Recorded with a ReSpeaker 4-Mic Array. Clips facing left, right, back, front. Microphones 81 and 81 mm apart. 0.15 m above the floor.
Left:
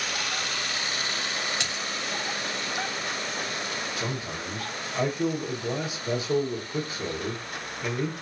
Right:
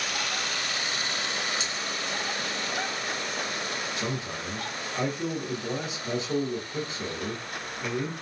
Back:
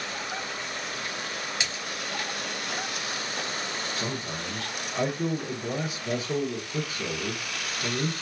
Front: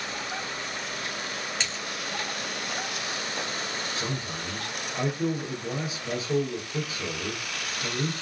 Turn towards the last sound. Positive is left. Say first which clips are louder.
# even, even
turn(degrees=150)